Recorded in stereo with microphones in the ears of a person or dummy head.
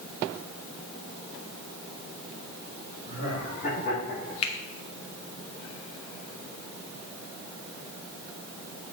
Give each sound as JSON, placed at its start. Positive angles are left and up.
{"t": 3.0, "sound": "laughter", "side_deg": 50, "distance_m": 4.5}
{"t": 4.4, "sound": "a finger snap", "side_deg": 35, "distance_m": 1.4}